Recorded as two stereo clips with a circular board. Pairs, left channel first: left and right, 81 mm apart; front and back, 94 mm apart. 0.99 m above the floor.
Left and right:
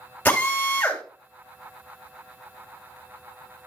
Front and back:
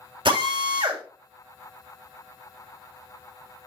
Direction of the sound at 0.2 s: 160° left.